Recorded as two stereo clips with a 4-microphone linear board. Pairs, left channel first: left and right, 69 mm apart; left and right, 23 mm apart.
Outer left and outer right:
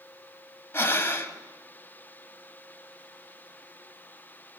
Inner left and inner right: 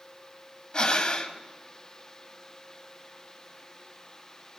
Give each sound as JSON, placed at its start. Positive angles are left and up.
{"t": 0.7, "sound": "breathing", "side_deg": 35, "distance_m": 1.1}